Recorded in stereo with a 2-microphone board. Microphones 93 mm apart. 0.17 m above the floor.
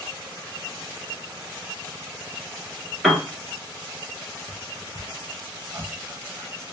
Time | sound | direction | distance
3.0 | a piano | 5° right (ahead or behind) | 0.9 m
4.5 | whispering | 35° right (ahead or behind) | 1.3 m